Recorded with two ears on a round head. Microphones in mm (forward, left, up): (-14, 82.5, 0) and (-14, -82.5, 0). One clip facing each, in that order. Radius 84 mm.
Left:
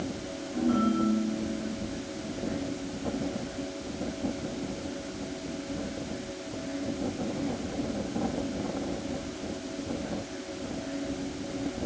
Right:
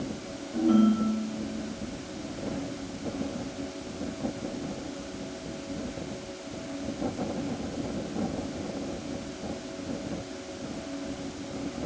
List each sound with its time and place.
0.5 s a ringtone: 45° right (ahead or behind), 6 m